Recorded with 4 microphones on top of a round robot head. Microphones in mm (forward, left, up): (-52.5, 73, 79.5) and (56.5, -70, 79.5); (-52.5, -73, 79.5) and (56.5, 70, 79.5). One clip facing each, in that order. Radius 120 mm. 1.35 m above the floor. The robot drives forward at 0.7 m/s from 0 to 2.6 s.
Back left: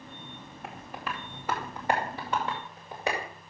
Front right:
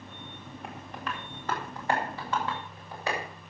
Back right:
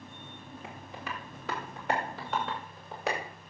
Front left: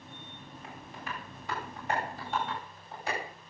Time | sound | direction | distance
0.6 | tapping | 145° right | 1.6 m